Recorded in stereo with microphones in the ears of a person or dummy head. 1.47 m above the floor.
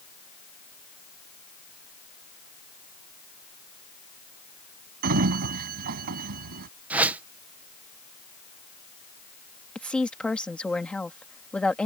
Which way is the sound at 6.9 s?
5° right (ahead or behind).